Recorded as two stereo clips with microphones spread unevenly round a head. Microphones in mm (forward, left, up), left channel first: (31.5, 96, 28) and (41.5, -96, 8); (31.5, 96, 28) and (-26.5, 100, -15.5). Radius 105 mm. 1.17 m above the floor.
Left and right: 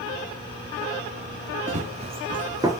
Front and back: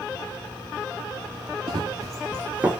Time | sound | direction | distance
1.7 | running footsteps | 120° right | 1.3 m